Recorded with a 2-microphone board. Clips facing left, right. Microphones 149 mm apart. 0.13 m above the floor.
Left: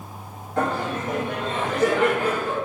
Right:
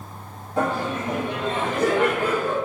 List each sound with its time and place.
0.6 s laughter: 15° right (ahead or behind), 2.0 m; by 2.5 s 45° right (ahead or behind), 2 m